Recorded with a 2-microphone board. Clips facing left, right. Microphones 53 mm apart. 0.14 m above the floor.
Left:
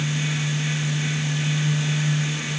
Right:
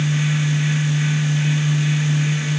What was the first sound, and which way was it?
Only background noise.